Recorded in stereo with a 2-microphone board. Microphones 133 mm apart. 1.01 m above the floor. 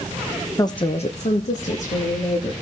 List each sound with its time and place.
0.6 s a woman speaking: 25° left (ahead or behind), 0.6 m; by 2.5 s 65° left (ahead or behind), 1.8 m